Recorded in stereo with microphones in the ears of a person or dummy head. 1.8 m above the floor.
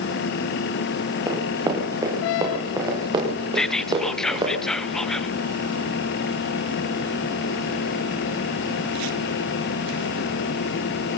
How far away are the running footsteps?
About 6.5 m.